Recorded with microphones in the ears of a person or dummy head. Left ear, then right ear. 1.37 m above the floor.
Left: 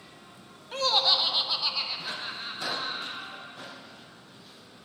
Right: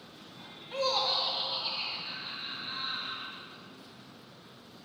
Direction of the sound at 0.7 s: 15° left (ahead or behind).